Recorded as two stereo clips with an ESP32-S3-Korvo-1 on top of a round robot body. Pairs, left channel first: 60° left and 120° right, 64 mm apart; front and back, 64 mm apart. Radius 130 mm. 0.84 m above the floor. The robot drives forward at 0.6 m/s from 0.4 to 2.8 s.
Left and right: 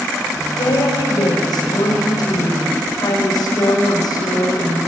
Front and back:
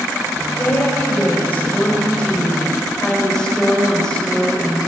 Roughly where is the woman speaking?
Ahead left.